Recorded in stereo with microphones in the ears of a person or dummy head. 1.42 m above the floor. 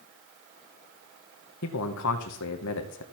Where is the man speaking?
70° left (ahead or behind), 1.0 m.